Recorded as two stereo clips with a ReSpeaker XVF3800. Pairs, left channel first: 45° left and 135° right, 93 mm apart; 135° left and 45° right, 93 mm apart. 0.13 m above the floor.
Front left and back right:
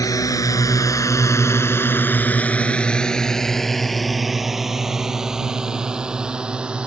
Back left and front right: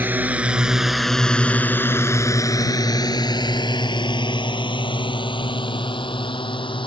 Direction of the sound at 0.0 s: 15° left.